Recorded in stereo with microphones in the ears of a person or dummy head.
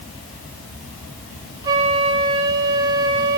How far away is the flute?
About 0.8 m.